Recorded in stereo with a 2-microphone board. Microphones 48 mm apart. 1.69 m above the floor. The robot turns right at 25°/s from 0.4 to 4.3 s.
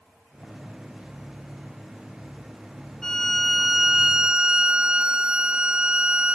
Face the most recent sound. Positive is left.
turn(degrees=-160)